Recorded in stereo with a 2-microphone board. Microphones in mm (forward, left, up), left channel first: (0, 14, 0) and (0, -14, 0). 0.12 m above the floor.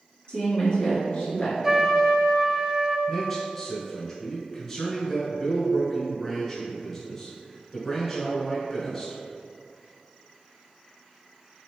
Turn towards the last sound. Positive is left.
turn(degrees=10)  # may be behind; listen again after turning